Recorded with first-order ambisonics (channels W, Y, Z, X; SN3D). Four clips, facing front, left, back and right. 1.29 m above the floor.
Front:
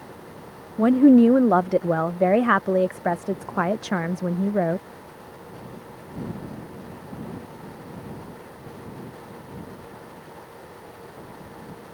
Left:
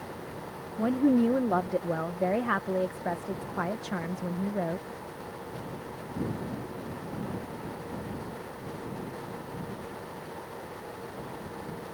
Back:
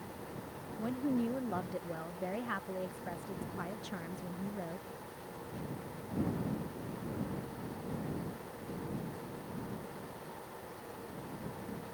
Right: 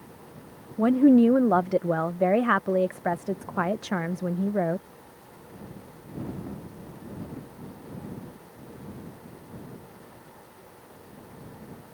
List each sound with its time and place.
0.8 s a woman speaking: 20° right